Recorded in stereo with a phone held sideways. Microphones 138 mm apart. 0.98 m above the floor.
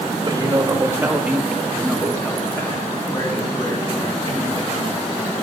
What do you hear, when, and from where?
0.2 s a man speaking: 30° right (ahead or behind), 1.4 m; by 5.0 s 50° left (ahead or behind), 2.5 m